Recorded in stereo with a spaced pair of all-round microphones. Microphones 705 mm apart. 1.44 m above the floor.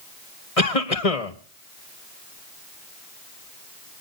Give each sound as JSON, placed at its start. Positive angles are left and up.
{"t": 0.6, "sound": "a cough", "side_deg": 50, "distance_m": 1.6}